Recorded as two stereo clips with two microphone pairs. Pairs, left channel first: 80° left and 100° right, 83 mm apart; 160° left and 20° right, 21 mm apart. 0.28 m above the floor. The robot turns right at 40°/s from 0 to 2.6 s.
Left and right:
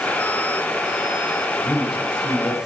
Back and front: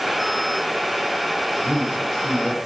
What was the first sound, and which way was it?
A man speaking, 60° left.